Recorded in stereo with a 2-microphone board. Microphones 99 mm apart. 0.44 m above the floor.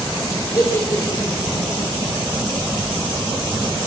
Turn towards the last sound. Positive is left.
turn(degrees=35)  # may be behind; listen again after turning